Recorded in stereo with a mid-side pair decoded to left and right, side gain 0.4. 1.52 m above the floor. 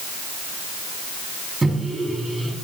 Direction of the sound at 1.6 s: 20° right.